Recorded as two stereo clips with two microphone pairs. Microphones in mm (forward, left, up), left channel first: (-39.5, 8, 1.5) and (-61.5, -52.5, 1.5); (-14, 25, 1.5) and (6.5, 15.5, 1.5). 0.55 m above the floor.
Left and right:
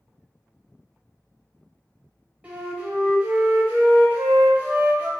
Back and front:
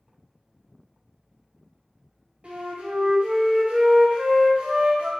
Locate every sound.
2.4 s a flute: 50° right, 0.6 m